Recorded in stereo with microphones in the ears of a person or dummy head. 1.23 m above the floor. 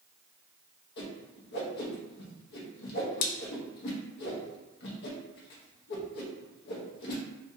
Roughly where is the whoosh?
Left.